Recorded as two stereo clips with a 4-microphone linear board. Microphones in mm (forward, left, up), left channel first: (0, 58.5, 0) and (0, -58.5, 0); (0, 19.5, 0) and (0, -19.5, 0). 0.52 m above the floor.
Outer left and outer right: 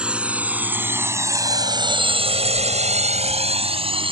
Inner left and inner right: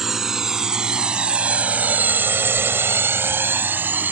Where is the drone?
10° right (ahead or behind); by 4.1 s 45° right (ahead or behind).